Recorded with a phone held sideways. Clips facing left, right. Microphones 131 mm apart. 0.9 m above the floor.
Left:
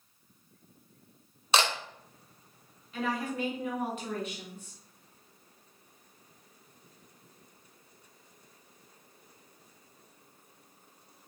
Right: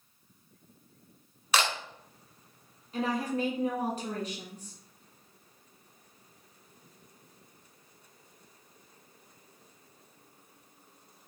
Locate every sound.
1.5 s a camera shutter: 30° left (ahead or behind), 0.8 m
2.9 s a woman speaking: 40° right (ahead or behind), 1.2 m